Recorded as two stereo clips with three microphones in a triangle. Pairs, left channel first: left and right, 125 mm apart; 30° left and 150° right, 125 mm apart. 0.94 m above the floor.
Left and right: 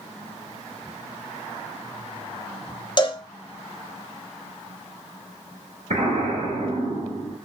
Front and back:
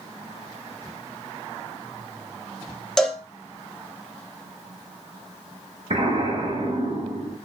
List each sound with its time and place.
3.0 s a cowbell: 115° left, 0.6 m
5.9 s an explosion: 120° right, 1.9 m